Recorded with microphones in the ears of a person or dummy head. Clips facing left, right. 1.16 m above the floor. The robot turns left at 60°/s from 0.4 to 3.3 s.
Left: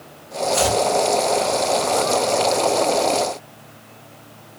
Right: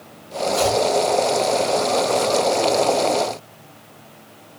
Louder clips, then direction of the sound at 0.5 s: Even; 35° left (ahead or behind).